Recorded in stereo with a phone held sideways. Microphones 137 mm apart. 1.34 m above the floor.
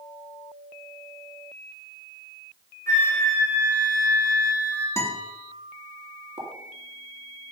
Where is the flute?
20° left (ahead or behind), 3 m.